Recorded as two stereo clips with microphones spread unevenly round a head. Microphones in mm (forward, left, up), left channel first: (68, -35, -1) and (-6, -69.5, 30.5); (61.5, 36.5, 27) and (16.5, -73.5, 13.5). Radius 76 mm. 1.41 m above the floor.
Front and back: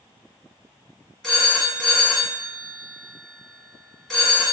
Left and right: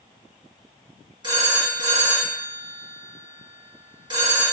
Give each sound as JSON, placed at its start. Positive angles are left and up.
{"t": 1.2, "sound": "a phone ringing", "azimuth_deg": -60, "distance_m": 2.0}